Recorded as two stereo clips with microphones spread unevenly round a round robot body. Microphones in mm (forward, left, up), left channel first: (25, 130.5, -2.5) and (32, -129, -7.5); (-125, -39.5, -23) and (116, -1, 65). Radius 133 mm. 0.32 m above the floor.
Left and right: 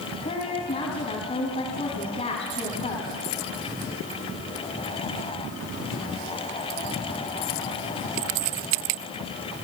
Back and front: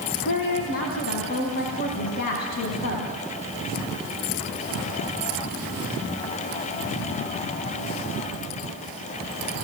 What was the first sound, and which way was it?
A woman speaking, 155° left.